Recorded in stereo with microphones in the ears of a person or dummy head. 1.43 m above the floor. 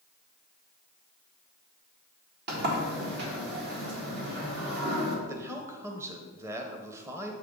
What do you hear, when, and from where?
2.5 s a sliding door: 65° right (ahead or behind), 1.8 m
5.3 s a man speaking: 15° right (ahead or behind), 0.8 m